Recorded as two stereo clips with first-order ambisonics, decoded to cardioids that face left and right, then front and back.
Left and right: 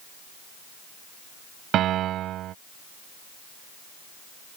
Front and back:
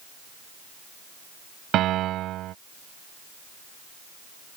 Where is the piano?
135° right.